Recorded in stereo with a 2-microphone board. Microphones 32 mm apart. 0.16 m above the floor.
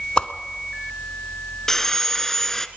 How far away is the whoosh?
About 0.9 m.